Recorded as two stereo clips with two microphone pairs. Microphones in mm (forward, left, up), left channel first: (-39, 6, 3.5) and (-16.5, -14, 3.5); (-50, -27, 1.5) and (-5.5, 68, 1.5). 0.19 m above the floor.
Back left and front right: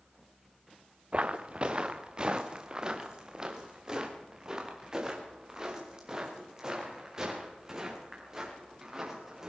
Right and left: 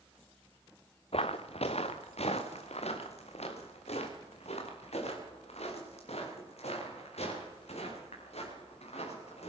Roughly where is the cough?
No cough in this recording.